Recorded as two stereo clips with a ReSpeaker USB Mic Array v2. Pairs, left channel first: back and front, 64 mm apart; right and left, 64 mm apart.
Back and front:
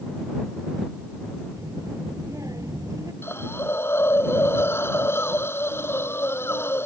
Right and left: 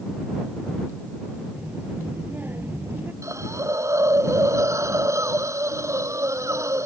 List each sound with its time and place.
1.6 s a child speaking: 30° left; by 3.1 s 35° left
3.2 s a hiss: 130° left